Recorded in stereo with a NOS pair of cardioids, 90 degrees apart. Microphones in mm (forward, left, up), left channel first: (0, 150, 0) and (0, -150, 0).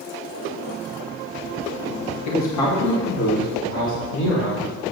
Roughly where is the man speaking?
Ahead left.